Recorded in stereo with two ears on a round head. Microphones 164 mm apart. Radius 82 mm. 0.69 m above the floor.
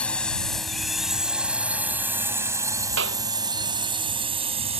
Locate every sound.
0.0 s a drone: 5° left (ahead or behind); by 4.8 s 35° right (ahead or behind)
3.0 s a clap: 65° right (ahead or behind)